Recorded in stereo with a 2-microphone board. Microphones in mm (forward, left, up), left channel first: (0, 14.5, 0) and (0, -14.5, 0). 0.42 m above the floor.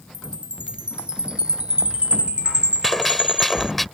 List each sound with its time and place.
0.1 s a chime: 45° right (ahead or behind)
2.8 s a gunshot: 5° left (ahead or behind)